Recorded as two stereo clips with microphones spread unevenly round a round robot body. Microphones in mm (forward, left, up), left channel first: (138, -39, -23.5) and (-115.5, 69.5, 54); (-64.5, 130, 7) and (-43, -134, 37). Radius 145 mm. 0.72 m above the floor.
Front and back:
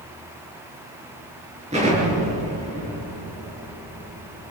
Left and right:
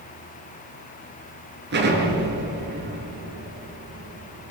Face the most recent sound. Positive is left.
turn(degrees=-135)